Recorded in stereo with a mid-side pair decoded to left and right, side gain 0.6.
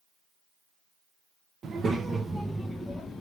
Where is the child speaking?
40° right, 0.8 m; by 3.2 s 20° left, 0.9 m.